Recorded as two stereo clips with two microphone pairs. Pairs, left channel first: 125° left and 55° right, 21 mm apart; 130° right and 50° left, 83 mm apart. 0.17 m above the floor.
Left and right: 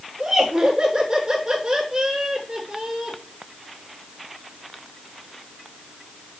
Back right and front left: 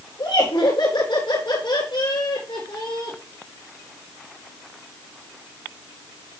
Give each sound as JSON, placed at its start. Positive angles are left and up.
{"t": 0.2, "sound": "laughter", "azimuth_deg": -105, "distance_m": 5.5}